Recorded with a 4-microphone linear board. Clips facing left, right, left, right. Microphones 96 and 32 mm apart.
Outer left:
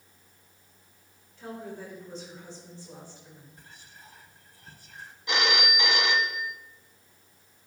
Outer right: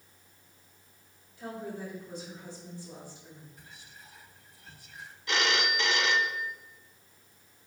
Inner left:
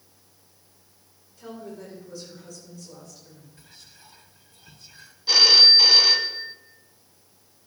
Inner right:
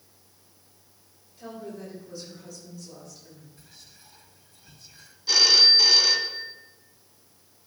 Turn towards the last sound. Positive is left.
turn(degrees=20)  # may be behind; listen again after turning